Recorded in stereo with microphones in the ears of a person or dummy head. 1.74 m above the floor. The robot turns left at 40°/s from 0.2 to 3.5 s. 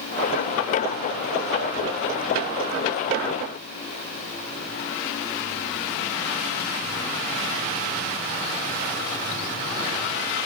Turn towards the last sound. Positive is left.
No sound to turn to.